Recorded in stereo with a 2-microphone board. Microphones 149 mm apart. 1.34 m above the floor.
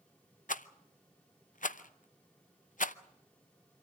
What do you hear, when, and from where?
0.5 s a rattle: 65° left (ahead or behind), 0.7 m